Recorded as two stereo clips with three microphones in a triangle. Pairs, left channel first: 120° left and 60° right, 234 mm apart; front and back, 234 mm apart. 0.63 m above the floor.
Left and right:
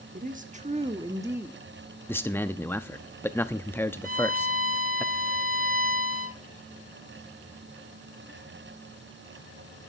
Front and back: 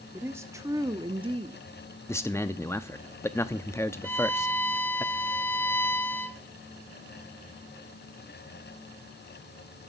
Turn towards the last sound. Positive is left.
turn(degrees=-75)